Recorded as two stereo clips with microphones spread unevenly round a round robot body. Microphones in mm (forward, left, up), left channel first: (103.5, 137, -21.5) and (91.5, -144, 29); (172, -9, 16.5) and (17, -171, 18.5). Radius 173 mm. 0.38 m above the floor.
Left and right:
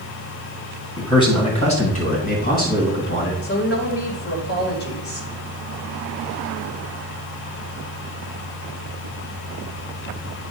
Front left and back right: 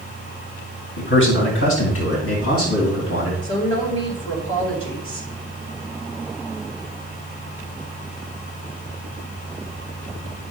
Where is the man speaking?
15° left, 2.5 m; by 3.3 s 40° left, 3.5 m.